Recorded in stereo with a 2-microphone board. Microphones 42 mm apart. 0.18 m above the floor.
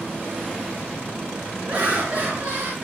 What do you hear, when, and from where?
1.7 s laughter: 35° right (ahead or behind), 2.5 m; by 2.8 s 55° right (ahead or behind), 3 m